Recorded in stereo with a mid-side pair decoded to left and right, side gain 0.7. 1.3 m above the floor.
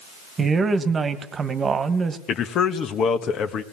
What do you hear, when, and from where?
0.4 s a woman speaking: 25° right, 1.7 m
2.3 s a man speaking: 45° left, 1.5 m